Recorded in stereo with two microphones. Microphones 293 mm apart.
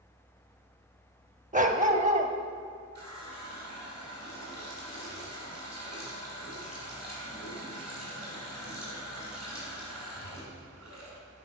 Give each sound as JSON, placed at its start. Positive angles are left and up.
{"t": 1.5, "sound": "a dog barking", "side_deg": -25, "distance_m": 0.5}
{"t": 3.0, "sound": "a running tap", "side_deg": -60, "distance_m": 2.5}